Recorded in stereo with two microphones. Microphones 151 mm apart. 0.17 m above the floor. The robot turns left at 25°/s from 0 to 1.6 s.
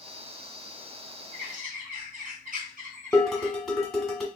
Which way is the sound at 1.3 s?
65° right (ahead or behind).